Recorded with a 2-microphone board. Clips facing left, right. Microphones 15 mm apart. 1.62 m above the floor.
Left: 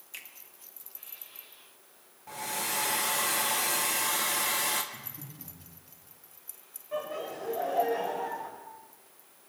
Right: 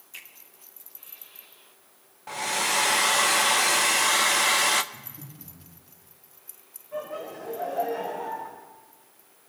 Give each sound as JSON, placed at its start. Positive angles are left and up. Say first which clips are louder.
{"t": 0.1, "sound": "a finger snap", "louder": "right 1 dB", "side_deg": 20, "distance_m": 1.6}
{"t": 2.3, "sound": "a hair dryer", "louder": "right 8 dB", "side_deg": -30, "distance_m": 0.5}
{"t": 4.9, "sound": "breathing", "louder": "right 1 dB", "side_deg": 40, "distance_m": 3.5}
{"t": 6.9, "sound": "laughter", "louder": "right 1 dB", "side_deg": 85, "distance_m": 4.0}